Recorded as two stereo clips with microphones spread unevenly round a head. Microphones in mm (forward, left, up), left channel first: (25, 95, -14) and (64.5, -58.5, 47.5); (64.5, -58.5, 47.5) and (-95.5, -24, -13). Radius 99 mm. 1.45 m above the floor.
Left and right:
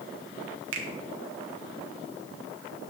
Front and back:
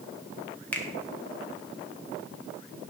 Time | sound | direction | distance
0.7 | a finger snap | 95° right | 1.9 m